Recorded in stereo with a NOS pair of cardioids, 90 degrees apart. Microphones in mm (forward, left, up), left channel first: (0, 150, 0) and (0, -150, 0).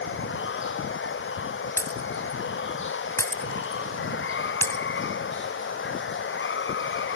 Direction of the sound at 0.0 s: 45° left.